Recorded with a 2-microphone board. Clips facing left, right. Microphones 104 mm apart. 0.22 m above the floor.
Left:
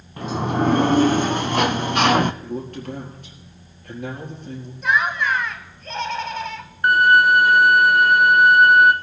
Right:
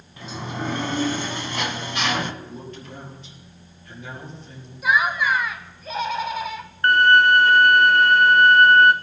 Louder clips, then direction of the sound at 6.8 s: Left 1 dB; 10° left (ahead or behind).